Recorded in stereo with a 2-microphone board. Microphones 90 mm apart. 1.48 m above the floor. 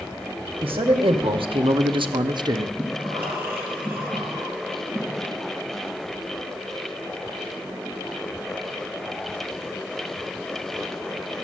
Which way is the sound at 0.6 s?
80° right.